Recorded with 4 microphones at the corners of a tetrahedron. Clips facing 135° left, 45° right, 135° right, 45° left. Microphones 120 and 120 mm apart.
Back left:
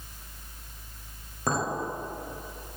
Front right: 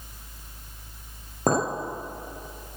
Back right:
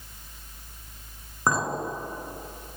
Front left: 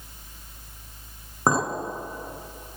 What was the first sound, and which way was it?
A clink, 15° right.